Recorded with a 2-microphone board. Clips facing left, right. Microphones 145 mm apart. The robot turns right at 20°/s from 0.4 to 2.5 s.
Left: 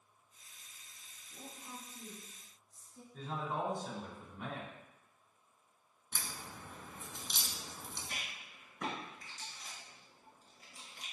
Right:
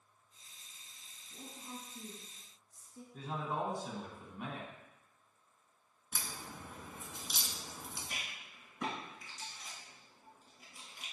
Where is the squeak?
No squeak in this recording.